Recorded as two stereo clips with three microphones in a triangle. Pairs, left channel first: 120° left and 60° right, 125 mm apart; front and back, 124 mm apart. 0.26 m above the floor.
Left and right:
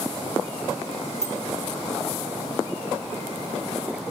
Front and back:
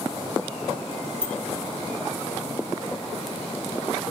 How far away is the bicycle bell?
About 5 m.